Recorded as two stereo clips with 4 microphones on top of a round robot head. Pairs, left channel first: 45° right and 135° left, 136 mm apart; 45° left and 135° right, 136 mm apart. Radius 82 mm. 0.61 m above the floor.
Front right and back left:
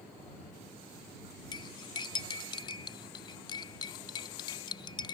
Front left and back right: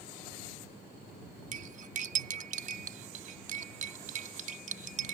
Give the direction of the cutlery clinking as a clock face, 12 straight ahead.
3 o'clock.